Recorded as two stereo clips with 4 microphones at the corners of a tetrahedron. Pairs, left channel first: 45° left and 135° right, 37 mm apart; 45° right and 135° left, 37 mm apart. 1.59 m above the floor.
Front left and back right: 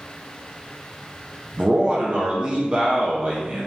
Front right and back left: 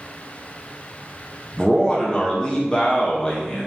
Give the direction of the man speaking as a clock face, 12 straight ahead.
3 o'clock.